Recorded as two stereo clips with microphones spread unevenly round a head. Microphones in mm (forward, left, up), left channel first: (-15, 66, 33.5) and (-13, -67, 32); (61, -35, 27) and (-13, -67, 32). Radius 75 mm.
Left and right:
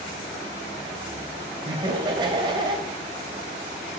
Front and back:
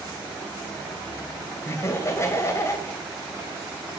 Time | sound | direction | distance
1.6 | laughter | 30° right | 2.5 m